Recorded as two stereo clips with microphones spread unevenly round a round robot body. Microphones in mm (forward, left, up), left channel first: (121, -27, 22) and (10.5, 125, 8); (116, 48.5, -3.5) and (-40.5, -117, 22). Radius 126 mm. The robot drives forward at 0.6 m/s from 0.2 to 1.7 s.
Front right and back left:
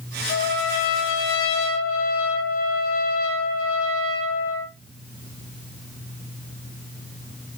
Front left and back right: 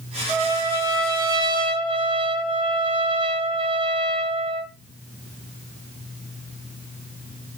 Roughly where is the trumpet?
Ahead right.